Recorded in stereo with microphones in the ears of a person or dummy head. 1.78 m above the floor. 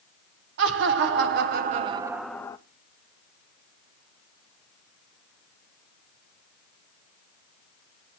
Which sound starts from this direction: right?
Laughter, at 0.6 s.